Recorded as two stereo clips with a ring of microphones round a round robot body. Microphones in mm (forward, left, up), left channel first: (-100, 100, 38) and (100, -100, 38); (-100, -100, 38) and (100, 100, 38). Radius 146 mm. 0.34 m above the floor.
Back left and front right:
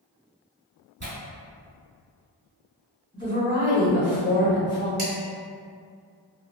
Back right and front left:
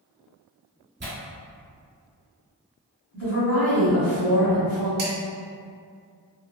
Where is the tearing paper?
5° right, 1.6 m.